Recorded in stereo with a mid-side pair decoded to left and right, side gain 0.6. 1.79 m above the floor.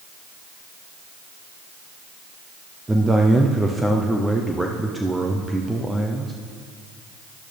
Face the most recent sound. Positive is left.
turn(degrees=-10)